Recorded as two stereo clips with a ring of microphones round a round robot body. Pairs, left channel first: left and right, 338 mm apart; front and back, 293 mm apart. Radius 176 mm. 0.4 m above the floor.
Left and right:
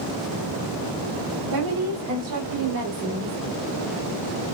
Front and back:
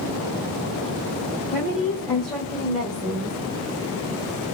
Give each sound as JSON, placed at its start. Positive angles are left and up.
{"t": 1.5, "sound": "a woman speaking", "azimuth_deg": -85, "distance_m": 2.5}